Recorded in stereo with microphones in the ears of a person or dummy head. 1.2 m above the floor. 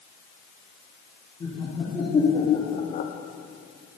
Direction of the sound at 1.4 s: 20° left (ahead or behind).